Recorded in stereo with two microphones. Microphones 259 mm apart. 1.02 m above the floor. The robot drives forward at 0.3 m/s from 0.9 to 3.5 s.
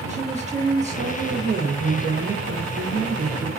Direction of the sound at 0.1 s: 25° right (ahead or behind).